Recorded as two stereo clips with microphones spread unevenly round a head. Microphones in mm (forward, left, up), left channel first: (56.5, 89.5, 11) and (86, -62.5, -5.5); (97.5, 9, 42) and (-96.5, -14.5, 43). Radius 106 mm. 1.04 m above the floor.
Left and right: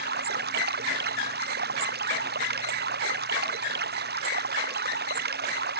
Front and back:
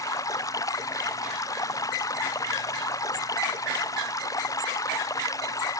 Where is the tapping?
I don't hear tapping.